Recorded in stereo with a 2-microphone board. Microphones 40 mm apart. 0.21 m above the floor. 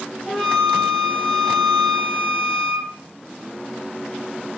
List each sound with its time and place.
0.3 s a flute: 5° right (ahead or behind), 0.9 m